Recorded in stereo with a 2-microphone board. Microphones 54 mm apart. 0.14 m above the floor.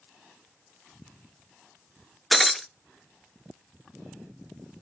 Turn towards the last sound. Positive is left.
turn(degrees=5)  # may be behind; listen again after turning